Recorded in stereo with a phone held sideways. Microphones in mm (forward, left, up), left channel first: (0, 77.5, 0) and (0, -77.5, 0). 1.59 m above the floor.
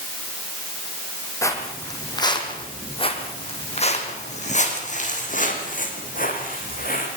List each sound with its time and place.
1.4 s footsteps: 20° left (ahead or behind), 4 m; by 7.1 s 65° left (ahead or behind), 6.5 m